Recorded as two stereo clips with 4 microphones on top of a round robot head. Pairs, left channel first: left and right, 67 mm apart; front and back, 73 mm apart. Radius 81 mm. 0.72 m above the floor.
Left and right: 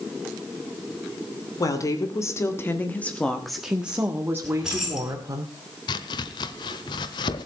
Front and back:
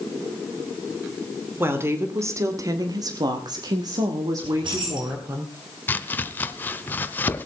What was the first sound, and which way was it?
A woman speaking, 120° left.